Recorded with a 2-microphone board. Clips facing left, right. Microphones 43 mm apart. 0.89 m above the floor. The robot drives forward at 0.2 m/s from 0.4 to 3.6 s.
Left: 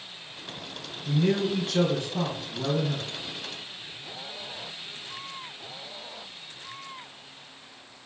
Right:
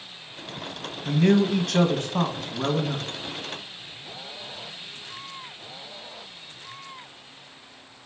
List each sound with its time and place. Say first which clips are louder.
1.1 s a man speaking: right 5 dB; 60° right (ahead or behind), 0.6 m; by 3.1 s 45° right (ahead or behind), 0.8 m